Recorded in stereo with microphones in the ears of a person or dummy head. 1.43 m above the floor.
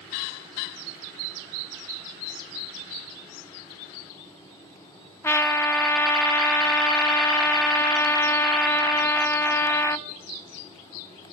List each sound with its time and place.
5.2 s a trumpet: 10° left (ahead or behind), 0.6 m